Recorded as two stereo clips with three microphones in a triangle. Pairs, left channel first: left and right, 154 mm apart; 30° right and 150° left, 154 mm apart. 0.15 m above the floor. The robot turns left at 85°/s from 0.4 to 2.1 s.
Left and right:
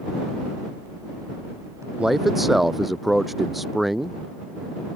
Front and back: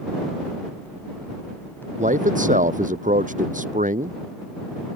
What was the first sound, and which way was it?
A man speaking, 170° right.